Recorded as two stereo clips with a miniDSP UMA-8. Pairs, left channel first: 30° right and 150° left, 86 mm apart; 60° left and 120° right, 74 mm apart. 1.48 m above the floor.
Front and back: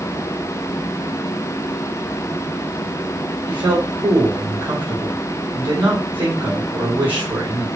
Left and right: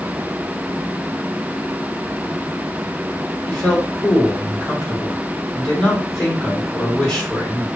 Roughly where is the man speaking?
Behind left.